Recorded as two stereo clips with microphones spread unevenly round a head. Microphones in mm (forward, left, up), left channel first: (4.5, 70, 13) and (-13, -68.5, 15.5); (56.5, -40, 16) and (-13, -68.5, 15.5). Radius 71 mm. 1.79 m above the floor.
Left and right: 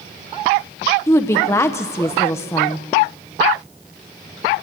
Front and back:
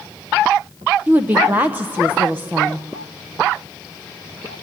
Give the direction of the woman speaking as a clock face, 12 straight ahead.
7 o'clock.